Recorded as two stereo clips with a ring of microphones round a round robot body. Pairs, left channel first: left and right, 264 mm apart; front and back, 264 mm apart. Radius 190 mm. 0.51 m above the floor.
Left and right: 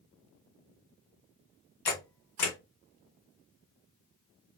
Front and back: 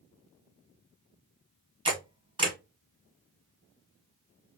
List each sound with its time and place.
1.9 s a camera shutter: 105° left, 1.5 m